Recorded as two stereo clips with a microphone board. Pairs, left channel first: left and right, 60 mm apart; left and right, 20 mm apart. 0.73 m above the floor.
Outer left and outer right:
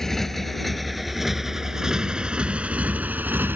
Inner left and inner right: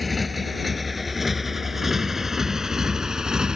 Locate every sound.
0.0 s a motorcycle: 5° left (ahead or behind); by 3.6 s 35° right (ahead or behind)